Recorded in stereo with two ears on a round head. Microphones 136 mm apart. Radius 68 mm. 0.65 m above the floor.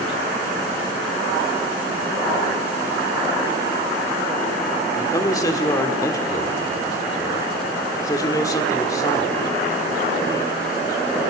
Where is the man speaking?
20° left (ahead or behind), 1.4 m.